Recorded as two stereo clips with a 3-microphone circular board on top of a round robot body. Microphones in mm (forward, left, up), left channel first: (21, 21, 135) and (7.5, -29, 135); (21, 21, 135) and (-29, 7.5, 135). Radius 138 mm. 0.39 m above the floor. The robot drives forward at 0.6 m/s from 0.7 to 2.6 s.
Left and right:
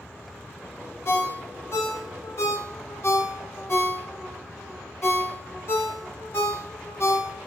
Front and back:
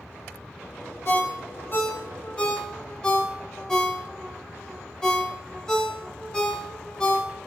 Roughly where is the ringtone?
Ahead left.